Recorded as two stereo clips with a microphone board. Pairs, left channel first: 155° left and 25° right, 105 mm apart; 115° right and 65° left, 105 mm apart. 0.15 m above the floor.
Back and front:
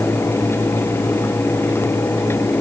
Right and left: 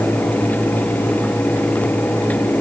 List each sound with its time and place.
Only background noise.